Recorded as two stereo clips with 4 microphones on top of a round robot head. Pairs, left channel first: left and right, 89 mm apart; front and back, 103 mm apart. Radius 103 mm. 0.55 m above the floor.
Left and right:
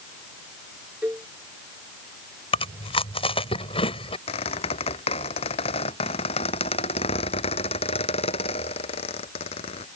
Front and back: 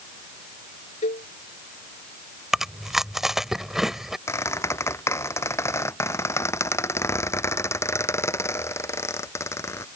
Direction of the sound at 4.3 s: 60° left.